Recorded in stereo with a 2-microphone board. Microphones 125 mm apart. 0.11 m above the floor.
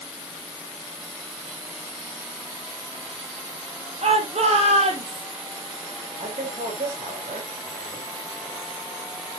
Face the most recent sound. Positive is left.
turn(degrees=-75)  # may be behind; listen again after turning